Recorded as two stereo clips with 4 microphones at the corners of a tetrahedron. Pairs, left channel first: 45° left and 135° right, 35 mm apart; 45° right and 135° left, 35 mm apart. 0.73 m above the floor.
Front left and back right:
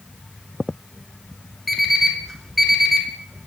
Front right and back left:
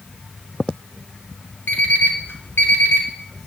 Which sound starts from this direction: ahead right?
An alarm clock, at 1.7 s.